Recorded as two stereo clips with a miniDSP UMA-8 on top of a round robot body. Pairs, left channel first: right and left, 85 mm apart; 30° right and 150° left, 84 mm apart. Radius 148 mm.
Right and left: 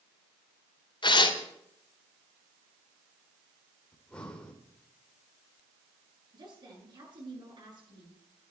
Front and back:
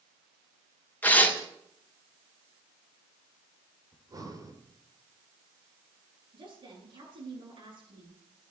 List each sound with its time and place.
1.0 s tearing paper: 100° right, 3 m
3.9 s breathing: 170° right, 2.5 m
6.3 s a woman speaking: 125° left, 10 m